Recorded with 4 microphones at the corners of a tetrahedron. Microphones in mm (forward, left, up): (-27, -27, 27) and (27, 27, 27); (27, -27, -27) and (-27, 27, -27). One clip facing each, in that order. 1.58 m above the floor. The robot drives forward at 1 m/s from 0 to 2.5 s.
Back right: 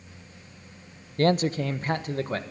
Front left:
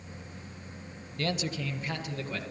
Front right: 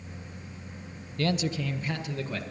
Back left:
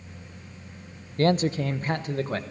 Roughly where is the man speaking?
Behind.